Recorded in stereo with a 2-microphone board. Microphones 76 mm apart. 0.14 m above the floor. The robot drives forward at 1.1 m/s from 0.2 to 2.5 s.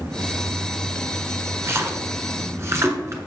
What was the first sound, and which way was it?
A splash, 35° right (ahead or behind).